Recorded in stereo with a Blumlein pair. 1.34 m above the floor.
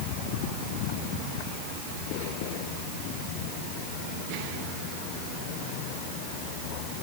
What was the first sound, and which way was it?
Only background noise.